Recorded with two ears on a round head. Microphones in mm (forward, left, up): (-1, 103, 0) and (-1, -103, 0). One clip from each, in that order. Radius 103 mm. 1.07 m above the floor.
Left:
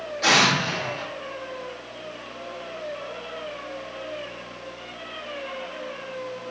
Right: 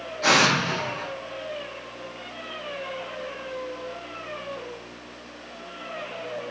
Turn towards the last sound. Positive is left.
turn(degrees=25)  # may be behind; listen again after turning